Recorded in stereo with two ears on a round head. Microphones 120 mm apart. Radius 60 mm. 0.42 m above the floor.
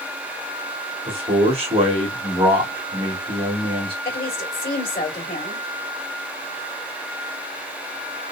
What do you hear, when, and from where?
1.1 s a man speaking: 40° right (ahead or behind), 1.5 m
4.0 s a woman speaking: 40° left (ahead or behind), 2 m